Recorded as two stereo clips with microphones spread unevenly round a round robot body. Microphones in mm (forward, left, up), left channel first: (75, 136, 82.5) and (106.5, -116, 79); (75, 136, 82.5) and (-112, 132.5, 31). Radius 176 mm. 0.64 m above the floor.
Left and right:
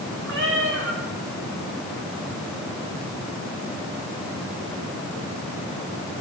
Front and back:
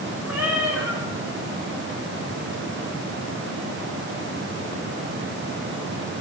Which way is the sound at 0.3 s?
45° right.